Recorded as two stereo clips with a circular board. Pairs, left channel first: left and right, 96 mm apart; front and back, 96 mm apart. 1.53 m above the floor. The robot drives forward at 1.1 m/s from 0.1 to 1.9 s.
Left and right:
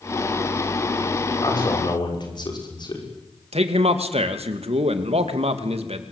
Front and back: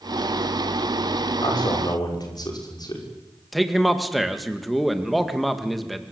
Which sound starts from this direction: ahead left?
A man speaking, at 1.4 s.